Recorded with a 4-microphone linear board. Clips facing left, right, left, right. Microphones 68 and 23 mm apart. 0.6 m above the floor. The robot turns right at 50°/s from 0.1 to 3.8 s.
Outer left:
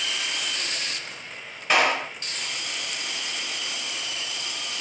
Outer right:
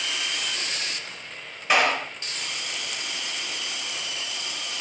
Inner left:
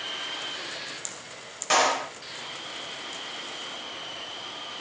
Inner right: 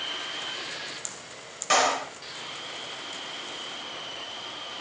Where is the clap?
Centre (ahead or behind), 0.9 m; by 2.1 s 10° left (ahead or behind), 0.9 m.